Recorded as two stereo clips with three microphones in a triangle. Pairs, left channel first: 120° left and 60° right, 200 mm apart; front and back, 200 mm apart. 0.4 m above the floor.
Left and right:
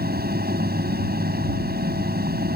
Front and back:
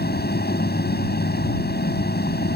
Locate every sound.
0.0 s an aircraft: 30° right